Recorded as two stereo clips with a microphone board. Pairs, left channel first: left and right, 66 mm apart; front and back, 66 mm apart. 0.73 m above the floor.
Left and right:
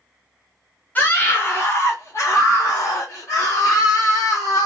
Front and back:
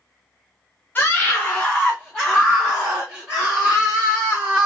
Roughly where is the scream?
Ahead left.